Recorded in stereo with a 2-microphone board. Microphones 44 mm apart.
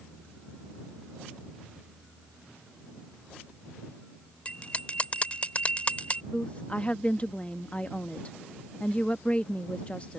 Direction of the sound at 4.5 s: 30° left (ahead or behind).